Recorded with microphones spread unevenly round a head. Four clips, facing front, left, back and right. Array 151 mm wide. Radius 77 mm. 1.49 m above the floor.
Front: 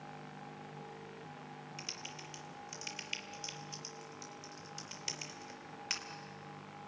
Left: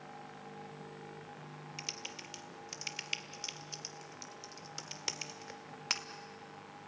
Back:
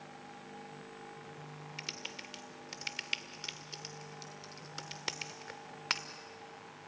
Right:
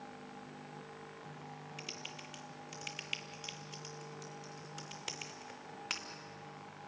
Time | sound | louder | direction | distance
1.8 | typing on a keyboard | left 1 dB, back 1 dB | 160° left | 1.5 m